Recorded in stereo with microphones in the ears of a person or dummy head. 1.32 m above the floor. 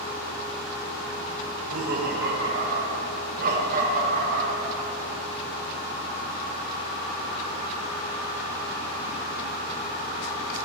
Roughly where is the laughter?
Right.